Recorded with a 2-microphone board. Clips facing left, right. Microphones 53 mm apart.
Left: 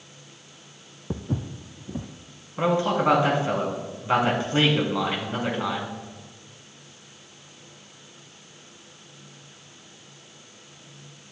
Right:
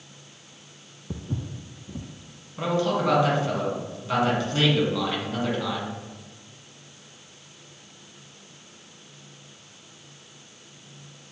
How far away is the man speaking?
About 2 m.